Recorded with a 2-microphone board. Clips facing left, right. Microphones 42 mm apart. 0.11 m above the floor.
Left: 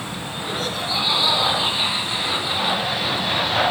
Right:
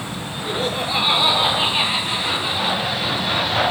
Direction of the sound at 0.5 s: 30° right (ahead or behind).